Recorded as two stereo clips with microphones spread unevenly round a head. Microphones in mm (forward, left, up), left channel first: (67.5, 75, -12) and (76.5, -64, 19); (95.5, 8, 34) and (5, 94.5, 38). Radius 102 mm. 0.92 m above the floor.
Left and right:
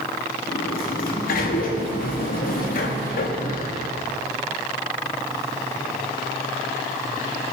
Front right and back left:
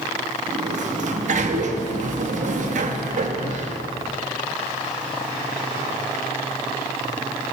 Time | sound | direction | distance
0.5 | a sliding door | 115° left | 1.1 m